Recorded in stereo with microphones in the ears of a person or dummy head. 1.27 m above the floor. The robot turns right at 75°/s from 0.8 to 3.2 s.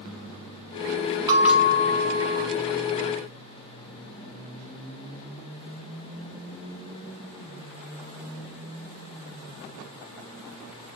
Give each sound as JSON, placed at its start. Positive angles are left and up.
{"t": 1.3, "sound": "a bell", "azimuth_deg": -20, "distance_m": 0.8}